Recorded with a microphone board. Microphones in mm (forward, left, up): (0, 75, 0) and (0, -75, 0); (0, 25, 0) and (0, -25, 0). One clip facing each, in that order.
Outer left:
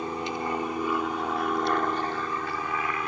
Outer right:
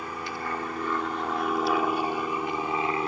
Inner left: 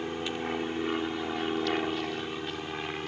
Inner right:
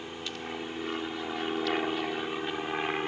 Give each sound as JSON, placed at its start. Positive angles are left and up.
{"t": 0.0, "sound": "an aircraft", "side_deg": 25}